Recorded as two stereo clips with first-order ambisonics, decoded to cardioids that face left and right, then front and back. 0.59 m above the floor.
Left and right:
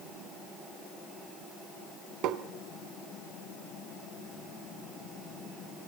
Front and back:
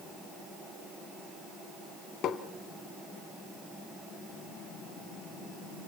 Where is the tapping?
50° right, 1.7 m.